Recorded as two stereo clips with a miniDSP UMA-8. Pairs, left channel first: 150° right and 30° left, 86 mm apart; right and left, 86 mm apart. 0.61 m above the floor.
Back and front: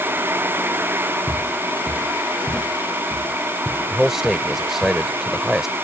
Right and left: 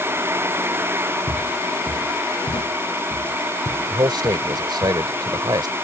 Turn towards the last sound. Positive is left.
turn(degrees=115)